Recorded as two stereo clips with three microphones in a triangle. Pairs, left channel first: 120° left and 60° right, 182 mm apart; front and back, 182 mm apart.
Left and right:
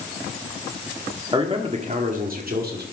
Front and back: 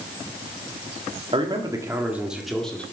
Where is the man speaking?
120° right, 1.9 m; by 2.8 s 85° right, 2.5 m.